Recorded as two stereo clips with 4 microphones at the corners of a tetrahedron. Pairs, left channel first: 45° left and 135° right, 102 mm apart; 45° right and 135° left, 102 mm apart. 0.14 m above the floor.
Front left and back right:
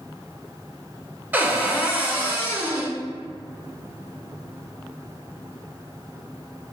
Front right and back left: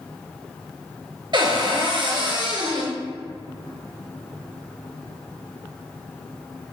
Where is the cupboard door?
155° left, 0.7 m.